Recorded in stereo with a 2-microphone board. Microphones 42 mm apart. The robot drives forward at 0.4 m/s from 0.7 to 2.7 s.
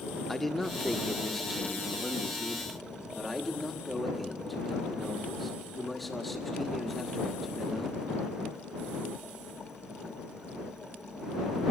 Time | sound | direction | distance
0.3 | a man speaking | 5° left (ahead or behind) | 0.7 m